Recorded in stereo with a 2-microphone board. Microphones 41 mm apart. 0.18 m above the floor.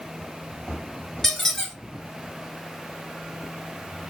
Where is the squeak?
10° left (ahead or behind), 0.9 m.